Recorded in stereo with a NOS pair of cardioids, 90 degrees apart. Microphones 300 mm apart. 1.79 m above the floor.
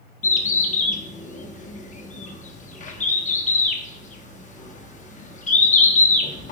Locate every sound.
0.2 s a bird: 25° left, 0.5 m